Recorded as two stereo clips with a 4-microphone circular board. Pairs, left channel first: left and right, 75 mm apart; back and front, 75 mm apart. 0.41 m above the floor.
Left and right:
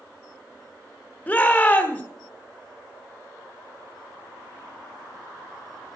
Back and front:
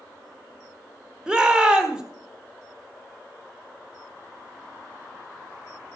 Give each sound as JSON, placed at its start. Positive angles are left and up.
{"t": 1.3, "sound": "a shout", "azimuth_deg": 55, "distance_m": 1.3}